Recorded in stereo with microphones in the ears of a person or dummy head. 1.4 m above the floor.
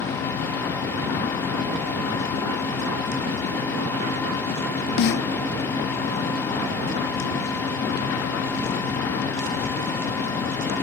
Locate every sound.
5.0 s a snare drum: 55° left (ahead or behind), 0.7 m